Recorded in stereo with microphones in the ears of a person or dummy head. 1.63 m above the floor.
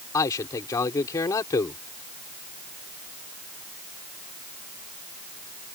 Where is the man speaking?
20° left (ahead or behind).